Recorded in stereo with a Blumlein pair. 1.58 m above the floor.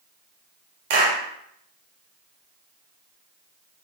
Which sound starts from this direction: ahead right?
A clap, at 0.9 s.